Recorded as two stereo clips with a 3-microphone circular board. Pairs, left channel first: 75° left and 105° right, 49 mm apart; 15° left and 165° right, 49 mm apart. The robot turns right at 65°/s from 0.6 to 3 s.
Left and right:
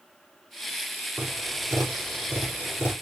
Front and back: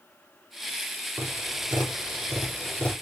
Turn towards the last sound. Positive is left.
turn(degrees=-45)